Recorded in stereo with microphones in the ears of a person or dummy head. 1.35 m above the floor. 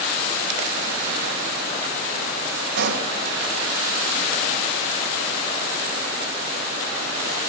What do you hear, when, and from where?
2.8 s a pop: 65° right (ahead or behind), 3.5 m